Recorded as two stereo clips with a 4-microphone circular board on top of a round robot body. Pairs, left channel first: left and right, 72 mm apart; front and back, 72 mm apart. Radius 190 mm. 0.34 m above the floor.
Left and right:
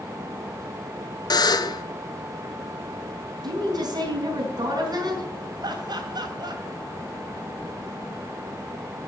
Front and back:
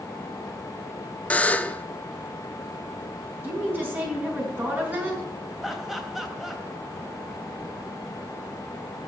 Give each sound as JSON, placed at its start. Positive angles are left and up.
{"t": 1.3, "sound": "a buzzer", "azimuth_deg": 70, "distance_m": 0.9}
{"t": 3.4, "sound": "a woman speaking", "azimuth_deg": -115, "distance_m": 4.5}
{"t": 5.6, "sound": "laughter", "azimuth_deg": -90, "distance_m": 3.0}